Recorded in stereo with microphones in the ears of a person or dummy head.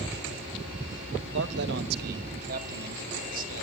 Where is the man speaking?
65° right (ahead or behind), 1.0 m; by 3.6 s 45° right (ahead or behind), 3 m.